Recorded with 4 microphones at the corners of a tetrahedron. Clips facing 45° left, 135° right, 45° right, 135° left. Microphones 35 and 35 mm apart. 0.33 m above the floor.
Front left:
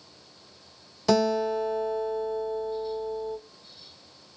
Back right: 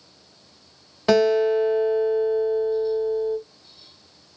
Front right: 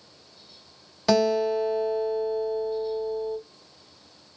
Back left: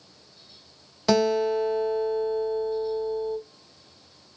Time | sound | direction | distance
1.1 | a guitar | 135° right | 1.4 m